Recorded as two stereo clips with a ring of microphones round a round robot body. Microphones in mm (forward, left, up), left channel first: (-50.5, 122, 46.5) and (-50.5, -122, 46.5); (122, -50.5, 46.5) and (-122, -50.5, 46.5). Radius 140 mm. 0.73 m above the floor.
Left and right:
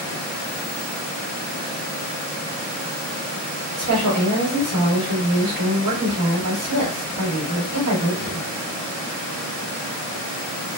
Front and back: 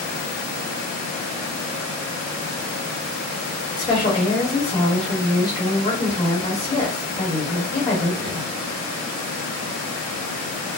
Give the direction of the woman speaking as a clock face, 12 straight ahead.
2 o'clock.